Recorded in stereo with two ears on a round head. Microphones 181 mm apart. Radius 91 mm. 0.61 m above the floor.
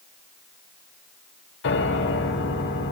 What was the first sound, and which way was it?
A piano, 65° left (ahead or behind).